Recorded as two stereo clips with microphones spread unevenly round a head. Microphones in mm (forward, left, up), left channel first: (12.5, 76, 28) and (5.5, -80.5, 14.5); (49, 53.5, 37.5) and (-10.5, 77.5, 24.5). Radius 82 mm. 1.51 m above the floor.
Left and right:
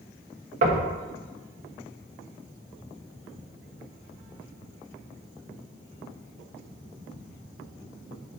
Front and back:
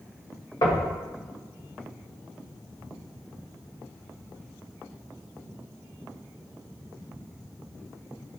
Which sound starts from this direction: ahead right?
Knocking, at 0.6 s.